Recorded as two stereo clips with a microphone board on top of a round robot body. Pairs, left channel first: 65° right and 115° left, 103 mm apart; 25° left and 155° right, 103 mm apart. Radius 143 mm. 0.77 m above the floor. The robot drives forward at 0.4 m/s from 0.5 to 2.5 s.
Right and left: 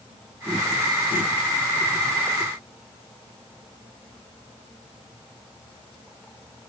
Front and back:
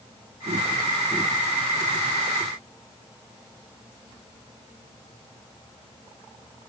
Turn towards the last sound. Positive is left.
No sound to turn to.